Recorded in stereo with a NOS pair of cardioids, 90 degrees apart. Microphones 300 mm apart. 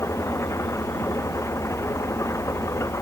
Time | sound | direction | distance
0.0 | an engine running | 10° left | ?